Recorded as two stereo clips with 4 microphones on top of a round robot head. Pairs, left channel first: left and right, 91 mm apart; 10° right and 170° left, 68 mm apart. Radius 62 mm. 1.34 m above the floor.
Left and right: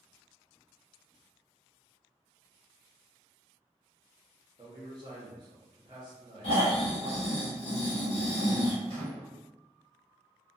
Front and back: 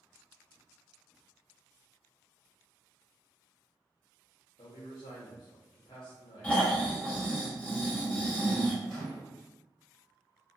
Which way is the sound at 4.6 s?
35° right.